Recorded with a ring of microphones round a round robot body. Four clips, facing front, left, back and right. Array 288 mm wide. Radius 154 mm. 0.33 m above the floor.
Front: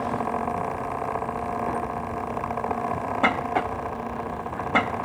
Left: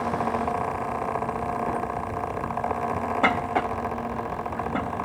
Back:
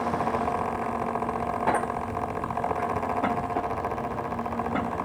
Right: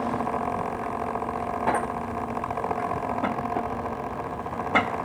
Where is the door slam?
I don't hear a door slam.